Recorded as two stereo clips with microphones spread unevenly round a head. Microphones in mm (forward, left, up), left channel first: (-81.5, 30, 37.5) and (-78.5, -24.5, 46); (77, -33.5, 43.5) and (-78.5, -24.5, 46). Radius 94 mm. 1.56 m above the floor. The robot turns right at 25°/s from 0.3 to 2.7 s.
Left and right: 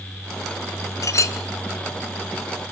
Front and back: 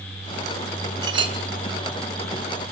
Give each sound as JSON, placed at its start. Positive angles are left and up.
{"t": 1.0, "sound": "a clink", "azimuth_deg": 110, "distance_m": 1.7}